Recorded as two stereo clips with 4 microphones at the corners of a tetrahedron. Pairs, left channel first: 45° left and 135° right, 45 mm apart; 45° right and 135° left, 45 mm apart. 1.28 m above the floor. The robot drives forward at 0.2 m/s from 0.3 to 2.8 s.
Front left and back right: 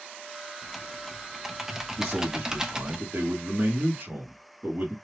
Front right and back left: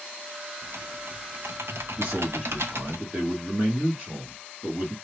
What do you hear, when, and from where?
0.6 s typing on a keyboard: 135° left, 0.7 m; by 3.0 s 150° left, 1.1 m
2.0 s a man speaking: 175° right, 1.8 m